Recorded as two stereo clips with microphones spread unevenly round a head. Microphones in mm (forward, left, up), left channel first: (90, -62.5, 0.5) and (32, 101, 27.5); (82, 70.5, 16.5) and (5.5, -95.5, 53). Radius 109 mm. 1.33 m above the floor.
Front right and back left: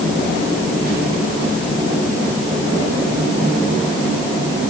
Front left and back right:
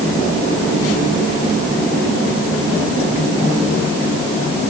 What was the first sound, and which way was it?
Only background noise.